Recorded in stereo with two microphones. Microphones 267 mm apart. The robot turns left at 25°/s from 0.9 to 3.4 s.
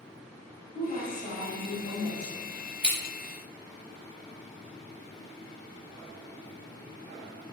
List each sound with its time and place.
0.8 s a woman speaking: 130° left, 1.3 m; by 2.5 s 90° left, 1.3 m
2.8 s scissors: 40° right (ahead or behind), 1.5 m; by 3.0 s 35° right (ahead or behind), 1.5 m